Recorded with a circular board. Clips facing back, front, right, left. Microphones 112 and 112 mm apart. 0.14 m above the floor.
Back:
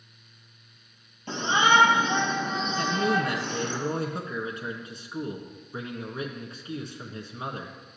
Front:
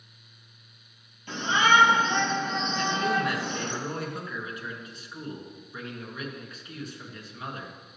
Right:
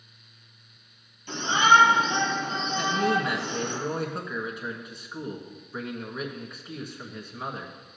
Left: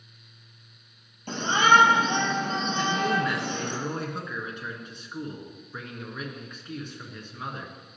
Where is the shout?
125° left, 3 m; by 3.8 s 70° left, 2.5 m.